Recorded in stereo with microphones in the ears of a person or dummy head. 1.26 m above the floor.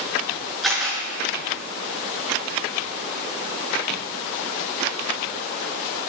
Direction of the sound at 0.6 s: 5° right (ahead or behind).